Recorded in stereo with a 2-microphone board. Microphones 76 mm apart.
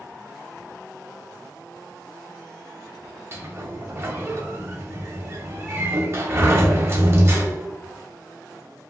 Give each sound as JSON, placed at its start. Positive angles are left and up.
{"t": 3.3, "sound": "a sliding door", "side_deg": -35, "distance_m": 0.6}